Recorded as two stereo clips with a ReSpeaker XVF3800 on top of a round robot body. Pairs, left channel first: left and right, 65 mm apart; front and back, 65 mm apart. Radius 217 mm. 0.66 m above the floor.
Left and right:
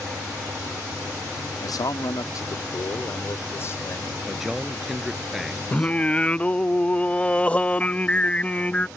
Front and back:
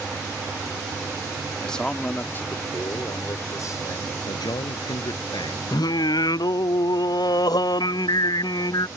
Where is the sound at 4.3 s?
5° right.